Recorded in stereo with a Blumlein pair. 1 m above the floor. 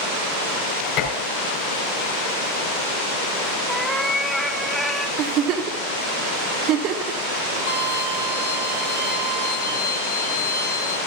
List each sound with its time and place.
1.0 s dishes clattering: 35° left, 3.5 m
3.7 s a cat meowing: straight ahead, 0.9 m
5.2 s a giggle: 35° right, 1.0 m
7.7 s a violin: 55° left, 1.8 m